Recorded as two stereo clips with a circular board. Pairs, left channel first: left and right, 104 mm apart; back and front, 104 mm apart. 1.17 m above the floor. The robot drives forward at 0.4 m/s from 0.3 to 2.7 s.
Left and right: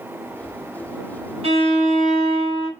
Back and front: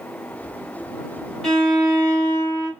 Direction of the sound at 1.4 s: 95° right.